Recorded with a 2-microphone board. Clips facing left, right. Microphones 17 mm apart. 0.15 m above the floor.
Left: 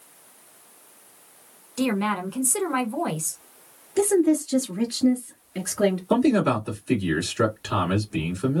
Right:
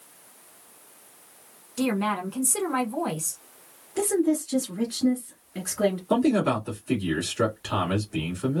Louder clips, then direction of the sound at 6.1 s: Left 2 dB; 10° left (ahead or behind).